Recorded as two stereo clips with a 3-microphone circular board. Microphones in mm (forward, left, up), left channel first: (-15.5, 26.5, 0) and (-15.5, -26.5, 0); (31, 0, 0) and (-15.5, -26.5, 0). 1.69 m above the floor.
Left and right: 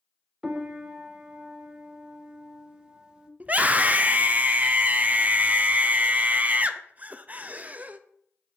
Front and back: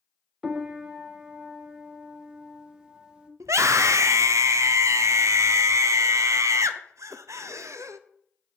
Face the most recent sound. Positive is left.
turn(degrees=-150)